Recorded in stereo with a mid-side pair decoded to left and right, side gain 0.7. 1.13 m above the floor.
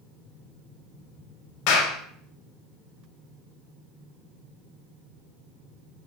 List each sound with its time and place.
1.7 s a clap: 65° left, 5 m